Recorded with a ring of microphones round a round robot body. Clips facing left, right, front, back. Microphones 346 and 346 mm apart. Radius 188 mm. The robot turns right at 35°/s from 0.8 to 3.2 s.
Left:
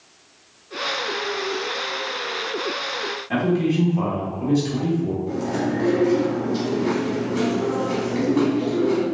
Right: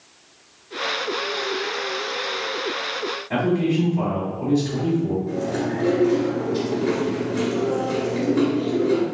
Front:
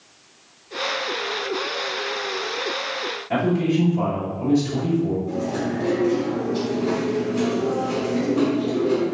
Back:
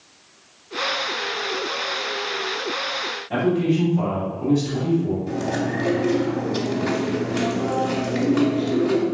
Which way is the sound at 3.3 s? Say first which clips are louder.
Even, back 1 dB; 60° left.